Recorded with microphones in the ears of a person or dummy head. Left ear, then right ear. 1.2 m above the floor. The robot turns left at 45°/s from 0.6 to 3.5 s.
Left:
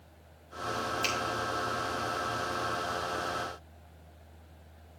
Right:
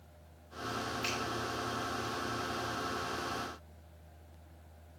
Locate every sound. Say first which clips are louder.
1.0 s a finger snap: left 5 dB; 25° left (ahead or behind), 2.5 m; by 1.1 s 20° left (ahead or behind), 2.5 m